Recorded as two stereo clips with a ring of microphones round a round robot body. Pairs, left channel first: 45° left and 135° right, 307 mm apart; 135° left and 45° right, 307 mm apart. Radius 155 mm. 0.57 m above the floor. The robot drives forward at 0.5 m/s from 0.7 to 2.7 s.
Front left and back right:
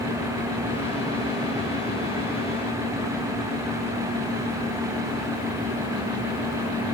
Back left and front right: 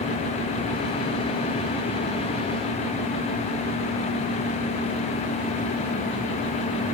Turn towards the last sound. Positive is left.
No sound to turn to.